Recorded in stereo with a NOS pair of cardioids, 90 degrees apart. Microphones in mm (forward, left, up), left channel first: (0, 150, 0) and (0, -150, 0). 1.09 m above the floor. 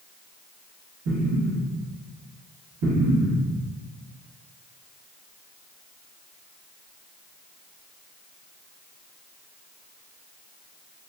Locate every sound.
1.1 s an explosion: 70° right, 1.4 m